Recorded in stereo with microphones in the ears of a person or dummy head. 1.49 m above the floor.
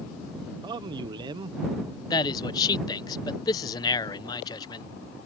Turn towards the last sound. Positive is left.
turn(degrees=25)  # may be behind; listen again after turning